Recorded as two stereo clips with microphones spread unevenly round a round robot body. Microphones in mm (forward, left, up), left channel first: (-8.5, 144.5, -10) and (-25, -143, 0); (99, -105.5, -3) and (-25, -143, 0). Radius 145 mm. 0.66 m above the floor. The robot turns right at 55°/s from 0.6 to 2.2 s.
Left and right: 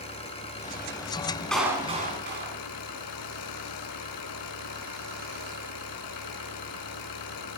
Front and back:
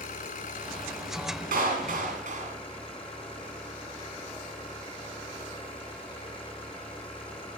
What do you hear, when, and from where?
0.0 s an engine running: 15° left, 5 m; by 7.6 s 105° left, 5 m
1.5 s a clap: 175° left, 5 m; by 2.5 s 150° right, 5 m